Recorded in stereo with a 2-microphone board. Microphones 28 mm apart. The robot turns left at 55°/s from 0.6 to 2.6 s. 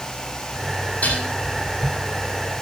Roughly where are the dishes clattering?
Left.